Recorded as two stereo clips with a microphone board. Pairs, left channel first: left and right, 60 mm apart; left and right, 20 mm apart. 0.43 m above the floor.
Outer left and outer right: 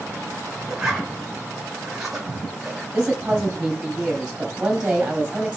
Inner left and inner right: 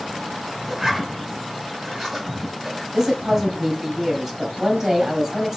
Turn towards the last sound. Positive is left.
turn(degrees=-15)  # may be behind; listen again after turning